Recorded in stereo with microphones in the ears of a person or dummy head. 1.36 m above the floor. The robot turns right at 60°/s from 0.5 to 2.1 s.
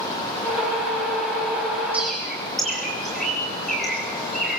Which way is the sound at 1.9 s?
10° right (ahead or behind).